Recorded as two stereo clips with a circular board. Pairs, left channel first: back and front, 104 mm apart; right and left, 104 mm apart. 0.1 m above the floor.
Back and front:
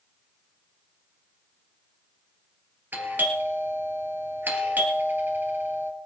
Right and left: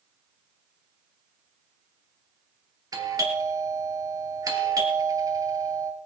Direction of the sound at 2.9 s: 60° left.